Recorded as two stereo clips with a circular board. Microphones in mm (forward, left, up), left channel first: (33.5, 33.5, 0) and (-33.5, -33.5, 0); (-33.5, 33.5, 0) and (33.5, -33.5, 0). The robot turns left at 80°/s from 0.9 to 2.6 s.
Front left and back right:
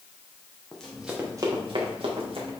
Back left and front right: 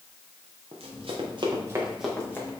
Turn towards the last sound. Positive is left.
turn(degrees=-175)